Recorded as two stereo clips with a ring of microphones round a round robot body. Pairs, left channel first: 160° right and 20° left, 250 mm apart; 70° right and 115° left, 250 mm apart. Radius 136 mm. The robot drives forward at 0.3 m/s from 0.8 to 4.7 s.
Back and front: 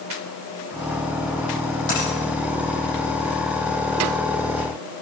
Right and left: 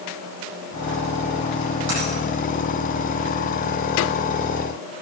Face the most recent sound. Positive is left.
turn(degrees=145)